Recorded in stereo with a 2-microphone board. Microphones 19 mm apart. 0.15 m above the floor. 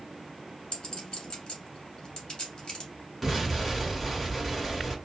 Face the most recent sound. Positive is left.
turn(degrees=-10)  # may be behind; listen again after turning